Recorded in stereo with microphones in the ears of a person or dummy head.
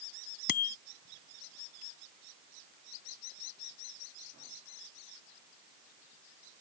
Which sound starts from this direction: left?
A bicycle bell, at 0.5 s.